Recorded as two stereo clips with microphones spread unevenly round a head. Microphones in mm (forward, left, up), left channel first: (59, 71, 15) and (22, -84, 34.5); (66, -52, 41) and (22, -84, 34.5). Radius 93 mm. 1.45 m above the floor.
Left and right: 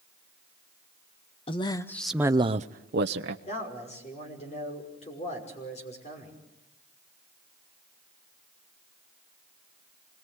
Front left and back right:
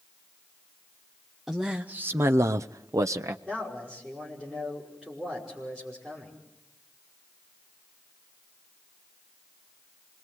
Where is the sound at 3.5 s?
135° left, 5.5 m.